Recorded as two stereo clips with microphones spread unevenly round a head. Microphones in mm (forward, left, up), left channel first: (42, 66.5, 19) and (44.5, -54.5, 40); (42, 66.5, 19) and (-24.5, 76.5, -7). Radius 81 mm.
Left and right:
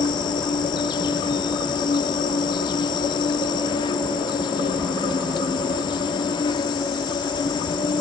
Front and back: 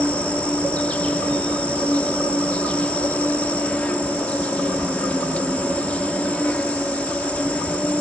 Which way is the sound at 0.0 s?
40° left.